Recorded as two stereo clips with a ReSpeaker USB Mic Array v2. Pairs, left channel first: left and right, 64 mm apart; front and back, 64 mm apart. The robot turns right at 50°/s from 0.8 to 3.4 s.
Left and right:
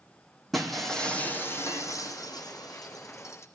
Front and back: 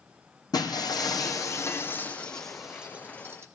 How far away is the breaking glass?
About 3 m.